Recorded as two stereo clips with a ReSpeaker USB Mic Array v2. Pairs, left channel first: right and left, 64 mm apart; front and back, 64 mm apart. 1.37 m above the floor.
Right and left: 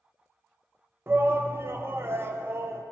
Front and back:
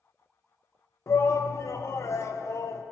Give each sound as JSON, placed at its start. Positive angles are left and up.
{"t": 1.1, "sound": "a shout", "azimuth_deg": 40, "distance_m": 0.6}